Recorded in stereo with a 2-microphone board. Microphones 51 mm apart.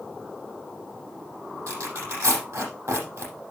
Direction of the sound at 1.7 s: 85° right.